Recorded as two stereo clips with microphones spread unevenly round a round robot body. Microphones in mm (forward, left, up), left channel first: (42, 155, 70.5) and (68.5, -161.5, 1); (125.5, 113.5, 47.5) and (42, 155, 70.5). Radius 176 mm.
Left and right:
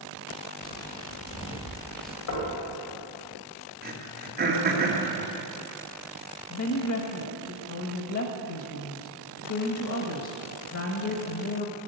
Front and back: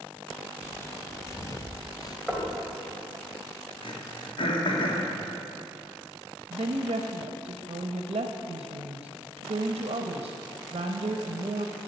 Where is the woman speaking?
140° left, 0.9 m.